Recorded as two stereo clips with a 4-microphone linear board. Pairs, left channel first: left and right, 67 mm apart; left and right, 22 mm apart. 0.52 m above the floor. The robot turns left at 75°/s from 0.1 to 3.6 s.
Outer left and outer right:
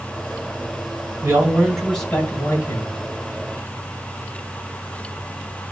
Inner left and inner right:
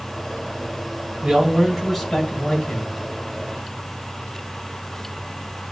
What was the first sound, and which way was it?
A man speaking, 140° right.